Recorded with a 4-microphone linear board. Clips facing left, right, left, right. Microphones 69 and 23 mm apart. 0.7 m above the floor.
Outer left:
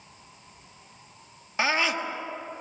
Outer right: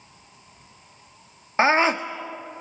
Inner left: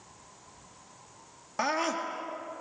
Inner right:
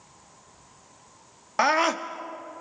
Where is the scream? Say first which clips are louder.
Outer right 7 dB, inner right 7 dB; 35° right (ahead or behind), 1.6 m.